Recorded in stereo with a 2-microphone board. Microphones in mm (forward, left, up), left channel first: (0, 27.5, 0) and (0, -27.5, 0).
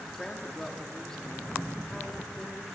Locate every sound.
0.2 s a woman speaking: 10° left (ahead or behind), 2 m